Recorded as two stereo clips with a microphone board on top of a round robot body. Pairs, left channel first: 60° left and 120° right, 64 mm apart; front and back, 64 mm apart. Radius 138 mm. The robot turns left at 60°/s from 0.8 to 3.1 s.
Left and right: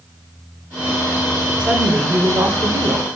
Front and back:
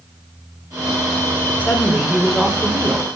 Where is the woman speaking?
50° right, 1.8 m; by 3.1 s 140° right, 1.8 m.